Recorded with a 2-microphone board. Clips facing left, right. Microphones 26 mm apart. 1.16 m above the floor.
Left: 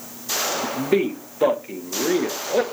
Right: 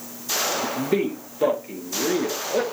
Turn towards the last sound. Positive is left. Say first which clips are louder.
# left 2 dB
turn(degrees=10)  # may be behind; listen again after turning